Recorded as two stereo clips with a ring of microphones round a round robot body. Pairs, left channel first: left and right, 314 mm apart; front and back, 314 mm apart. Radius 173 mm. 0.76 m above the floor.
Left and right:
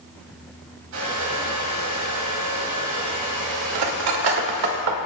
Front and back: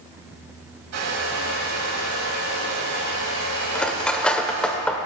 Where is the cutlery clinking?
85° right, 1.4 m.